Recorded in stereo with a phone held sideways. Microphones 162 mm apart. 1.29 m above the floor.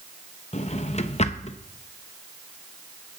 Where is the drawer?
45° left (ahead or behind), 0.7 m.